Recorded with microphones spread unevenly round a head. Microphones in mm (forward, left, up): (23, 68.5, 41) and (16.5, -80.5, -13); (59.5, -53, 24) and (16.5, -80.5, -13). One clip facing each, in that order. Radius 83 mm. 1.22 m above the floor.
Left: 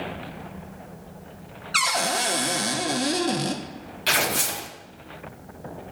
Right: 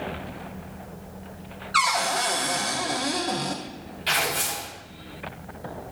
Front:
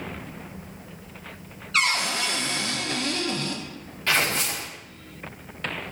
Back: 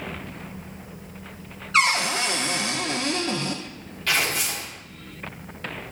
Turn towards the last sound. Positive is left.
turn(degrees=85)